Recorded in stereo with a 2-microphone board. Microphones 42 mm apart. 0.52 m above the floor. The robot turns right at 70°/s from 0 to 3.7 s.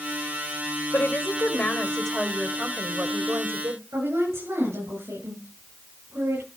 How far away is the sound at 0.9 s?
About 2 m.